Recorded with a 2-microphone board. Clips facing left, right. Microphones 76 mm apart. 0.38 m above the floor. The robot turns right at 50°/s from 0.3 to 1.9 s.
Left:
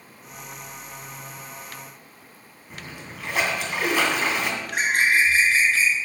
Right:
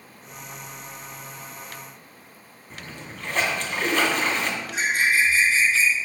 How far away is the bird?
About 3 m.